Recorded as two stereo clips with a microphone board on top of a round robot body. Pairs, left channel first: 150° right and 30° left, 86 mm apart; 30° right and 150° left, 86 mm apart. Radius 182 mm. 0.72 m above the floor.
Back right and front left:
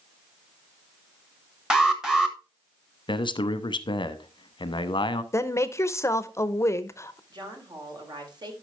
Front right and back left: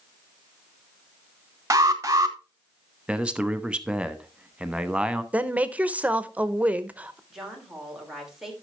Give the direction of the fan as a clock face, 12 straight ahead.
I don't hear a fan.